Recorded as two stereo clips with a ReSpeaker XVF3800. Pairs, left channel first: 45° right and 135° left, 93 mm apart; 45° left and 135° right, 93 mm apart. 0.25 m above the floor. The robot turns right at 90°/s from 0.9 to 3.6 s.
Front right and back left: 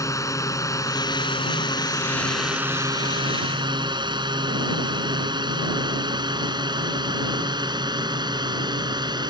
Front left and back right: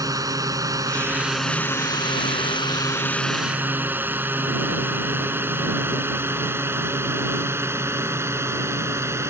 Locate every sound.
0.0 s a drone: 95° right; by 9.3 s 165° left